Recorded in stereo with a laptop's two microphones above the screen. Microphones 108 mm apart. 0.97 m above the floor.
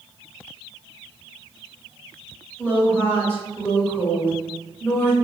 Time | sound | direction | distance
2.6 | a woman speaking | 20° left (ahead or behind) | 1.6 m